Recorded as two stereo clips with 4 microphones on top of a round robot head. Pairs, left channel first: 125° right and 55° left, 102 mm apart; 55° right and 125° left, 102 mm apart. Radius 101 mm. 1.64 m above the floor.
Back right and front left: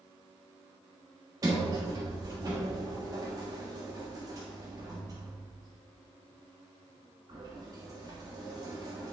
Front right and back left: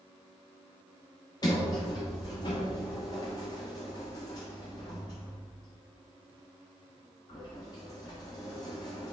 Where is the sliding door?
Straight ahead, 1.2 m.